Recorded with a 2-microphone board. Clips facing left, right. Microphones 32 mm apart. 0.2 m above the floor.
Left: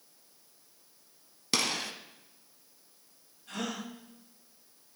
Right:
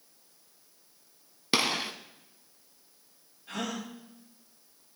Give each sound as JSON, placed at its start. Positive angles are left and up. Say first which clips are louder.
{"t": 1.5, "sound": "a gunshot", "louder": "right 3 dB", "side_deg": -25, "distance_m": 0.7}
{"t": 3.5, "sound": "a gasp", "louder": "right 1 dB", "side_deg": -20, "distance_m": 3.5}